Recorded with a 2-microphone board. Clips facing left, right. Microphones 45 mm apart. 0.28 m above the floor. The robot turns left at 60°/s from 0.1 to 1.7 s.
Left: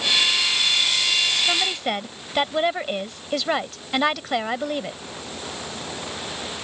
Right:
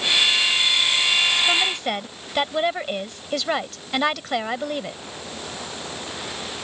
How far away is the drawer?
I don't hear a drawer.